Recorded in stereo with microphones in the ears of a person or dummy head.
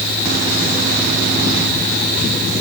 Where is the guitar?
I don't hear a guitar.